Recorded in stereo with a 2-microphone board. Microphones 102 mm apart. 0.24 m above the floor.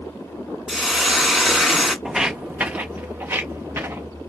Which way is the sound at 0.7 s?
5° right (ahead or behind).